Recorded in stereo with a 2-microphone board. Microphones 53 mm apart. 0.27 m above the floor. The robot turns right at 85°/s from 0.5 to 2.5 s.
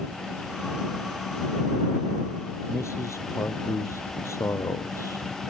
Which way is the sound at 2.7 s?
65° left (ahead or behind).